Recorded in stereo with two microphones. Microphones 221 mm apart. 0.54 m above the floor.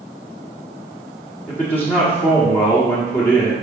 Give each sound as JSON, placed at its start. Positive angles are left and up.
{"t": 1.5, "sound": "a man speaking", "side_deg": 10, "distance_m": 1.5}